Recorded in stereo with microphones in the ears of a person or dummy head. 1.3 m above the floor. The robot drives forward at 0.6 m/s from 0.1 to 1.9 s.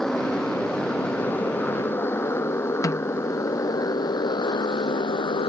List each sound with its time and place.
0.0 s a motorcycle: centre (ahead or behind); by 5.5 s 30° left (ahead or behind)
2.8 s a snare drum: 15° left (ahead or behind)